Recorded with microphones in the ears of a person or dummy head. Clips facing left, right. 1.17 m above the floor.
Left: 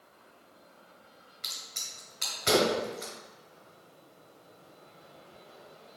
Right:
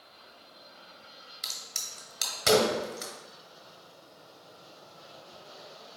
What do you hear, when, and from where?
1.4 s a crack: 55° right (ahead or behind), 1.4 m